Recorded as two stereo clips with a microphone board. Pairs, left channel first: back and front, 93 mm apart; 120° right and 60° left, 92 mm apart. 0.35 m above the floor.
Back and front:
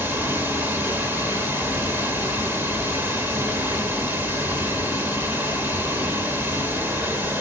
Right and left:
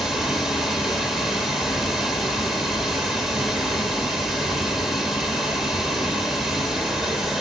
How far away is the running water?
About 1.1 m.